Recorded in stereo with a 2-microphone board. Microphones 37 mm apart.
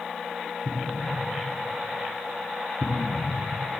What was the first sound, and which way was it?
An explosion, 10° left (ahead or behind).